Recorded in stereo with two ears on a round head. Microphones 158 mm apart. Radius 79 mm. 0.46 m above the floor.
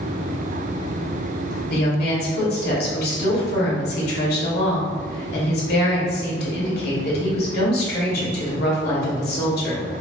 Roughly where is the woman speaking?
Left.